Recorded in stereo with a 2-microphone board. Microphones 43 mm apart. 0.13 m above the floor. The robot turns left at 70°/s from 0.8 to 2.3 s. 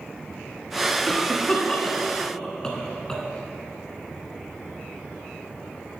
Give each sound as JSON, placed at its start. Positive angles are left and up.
{"t": 1.1, "sound": "a cough", "side_deg": 10, "distance_m": 1.1}